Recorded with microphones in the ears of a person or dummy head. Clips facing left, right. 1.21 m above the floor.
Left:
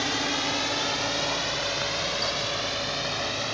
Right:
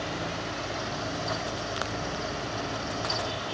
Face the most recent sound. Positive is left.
turn(degrees=75)  # may be behind; listen again after turning